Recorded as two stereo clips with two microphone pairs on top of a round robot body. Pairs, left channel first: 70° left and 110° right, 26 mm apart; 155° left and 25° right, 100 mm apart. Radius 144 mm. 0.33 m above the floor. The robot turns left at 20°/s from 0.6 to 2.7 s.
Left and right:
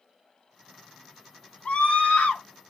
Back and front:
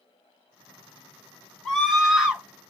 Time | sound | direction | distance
1.6 | a scream | 70° left | 1.8 m